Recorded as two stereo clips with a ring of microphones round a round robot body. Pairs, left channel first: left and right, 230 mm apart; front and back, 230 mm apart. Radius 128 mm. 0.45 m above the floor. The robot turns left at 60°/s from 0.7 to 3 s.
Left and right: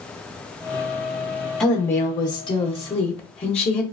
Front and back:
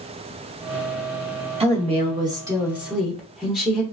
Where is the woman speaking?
175° left, 0.8 m; by 3.8 s 90° left, 0.8 m.